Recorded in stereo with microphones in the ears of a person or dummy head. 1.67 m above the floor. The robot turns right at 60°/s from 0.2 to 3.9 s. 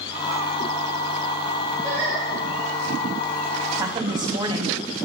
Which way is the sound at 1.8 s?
25° right (ahead or behind).